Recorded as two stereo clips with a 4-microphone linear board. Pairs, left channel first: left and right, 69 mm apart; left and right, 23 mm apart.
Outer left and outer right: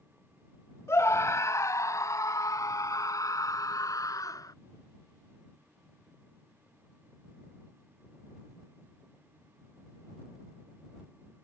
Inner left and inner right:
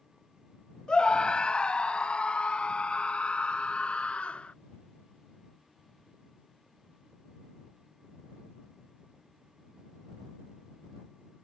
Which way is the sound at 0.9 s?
40° left (ahead or behind).